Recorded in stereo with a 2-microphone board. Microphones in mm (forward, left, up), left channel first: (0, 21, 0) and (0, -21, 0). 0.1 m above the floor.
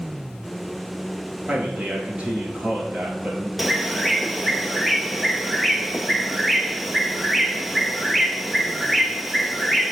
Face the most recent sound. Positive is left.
turn(degrees=0)  # may be behind; listen again after turning